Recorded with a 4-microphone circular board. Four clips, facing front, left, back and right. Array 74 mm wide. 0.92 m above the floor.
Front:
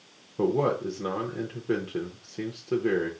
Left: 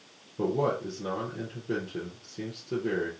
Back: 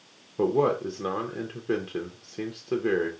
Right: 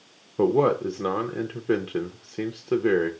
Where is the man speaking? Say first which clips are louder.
Right 7 dB, back 1 dB; 100° right, 0.6 m.